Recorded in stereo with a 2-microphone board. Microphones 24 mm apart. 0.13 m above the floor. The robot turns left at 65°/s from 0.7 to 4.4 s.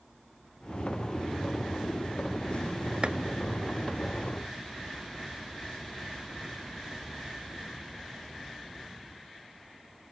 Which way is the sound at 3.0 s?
40° right (ahead or behind).